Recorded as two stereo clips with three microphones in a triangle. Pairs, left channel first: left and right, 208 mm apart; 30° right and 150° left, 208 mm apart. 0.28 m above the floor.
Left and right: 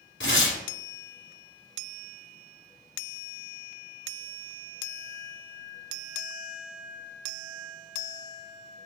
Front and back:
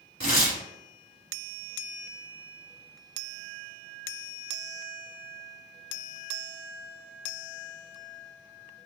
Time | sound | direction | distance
0.2 | tearing paper | 95° left | 1.4 m